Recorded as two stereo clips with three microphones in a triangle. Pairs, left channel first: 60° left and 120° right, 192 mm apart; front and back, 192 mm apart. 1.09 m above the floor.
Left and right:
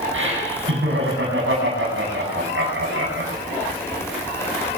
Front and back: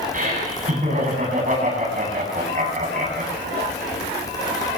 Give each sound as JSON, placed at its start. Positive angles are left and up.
{"t": 0.1, "sound": "laughter", "azimuth_deg": -130, "distance_m": 9.0}